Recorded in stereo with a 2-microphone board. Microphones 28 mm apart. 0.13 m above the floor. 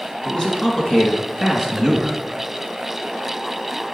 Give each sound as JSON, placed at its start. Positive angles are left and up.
{"t": 0.2, "sound": "a man speaking", "side_deg": 35, "distance_m": 2.0}